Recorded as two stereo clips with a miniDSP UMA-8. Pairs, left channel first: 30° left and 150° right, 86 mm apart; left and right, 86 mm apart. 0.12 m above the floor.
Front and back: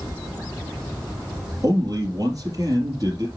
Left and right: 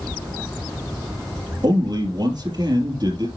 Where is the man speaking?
110° right, 3.5 m.